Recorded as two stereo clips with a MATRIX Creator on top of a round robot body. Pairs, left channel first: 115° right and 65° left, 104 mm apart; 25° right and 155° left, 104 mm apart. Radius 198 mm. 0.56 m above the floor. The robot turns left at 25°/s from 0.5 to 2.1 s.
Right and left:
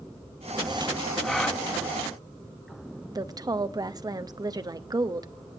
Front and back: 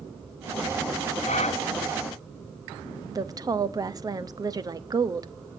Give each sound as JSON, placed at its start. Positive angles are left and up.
{"t": 1.2, "sound": "a gasp", "azimuth_deg": -25, "distance_m": 0.9}
{"t": 3.1, "sound": "a woman speaking", "azimuth_deg": 110, "distance_m": 1.2}